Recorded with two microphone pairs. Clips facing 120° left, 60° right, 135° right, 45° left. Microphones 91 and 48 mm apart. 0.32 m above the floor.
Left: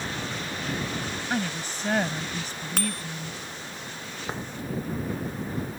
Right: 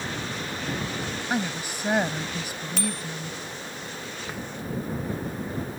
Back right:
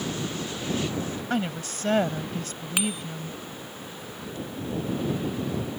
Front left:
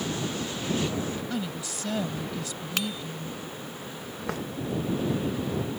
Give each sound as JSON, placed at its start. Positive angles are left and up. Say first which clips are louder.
{"t": 1.3, "sound": "a woman speaking", "louder": "right 1 dB, back right 4 dB", "azimuth_deg": -135}
{"t": 2.8, "sound": "a bicycle bell", "louder": "even, back right 3 dB", "azimuth_deg": 150}
{"t": 4.3, "sound": "a drawer", "louder": "left 3 dB, front left 4 dB", "azimuth_deg": 60}